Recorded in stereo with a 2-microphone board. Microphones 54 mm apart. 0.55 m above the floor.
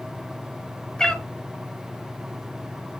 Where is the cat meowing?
15° left (ahead or behind), 0.8 m.